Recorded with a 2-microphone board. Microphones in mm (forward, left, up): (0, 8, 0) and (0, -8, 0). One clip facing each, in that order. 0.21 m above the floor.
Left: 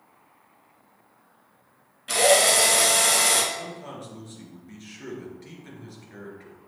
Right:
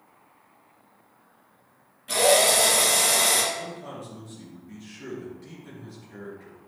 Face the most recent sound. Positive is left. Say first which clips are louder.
# even
turn(degrees=25)  # may be behind; listen again after turning